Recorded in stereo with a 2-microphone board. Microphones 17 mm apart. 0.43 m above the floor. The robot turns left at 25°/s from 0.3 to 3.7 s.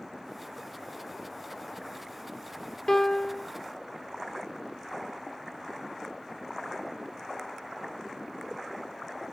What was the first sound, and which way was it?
A piano, 30° left (ahead or behind).